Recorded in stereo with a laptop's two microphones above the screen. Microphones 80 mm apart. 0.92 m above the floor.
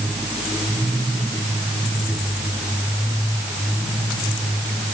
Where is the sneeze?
No sneeze in this recording.